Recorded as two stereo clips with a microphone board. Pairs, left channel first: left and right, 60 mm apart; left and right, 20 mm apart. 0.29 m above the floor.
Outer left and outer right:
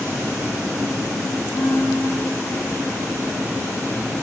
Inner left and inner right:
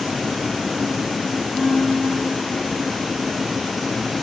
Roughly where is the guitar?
Left.